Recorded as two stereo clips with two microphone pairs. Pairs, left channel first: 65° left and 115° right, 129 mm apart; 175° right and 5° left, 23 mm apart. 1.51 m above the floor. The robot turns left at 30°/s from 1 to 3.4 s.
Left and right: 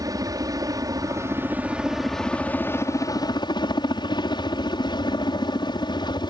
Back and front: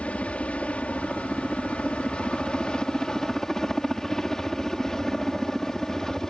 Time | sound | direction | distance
0.0 | a helicopter | 170° right | ?